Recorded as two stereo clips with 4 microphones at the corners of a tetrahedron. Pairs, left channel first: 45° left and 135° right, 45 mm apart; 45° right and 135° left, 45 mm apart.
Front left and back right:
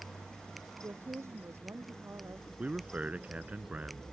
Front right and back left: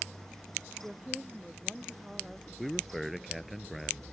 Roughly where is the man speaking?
Behind right.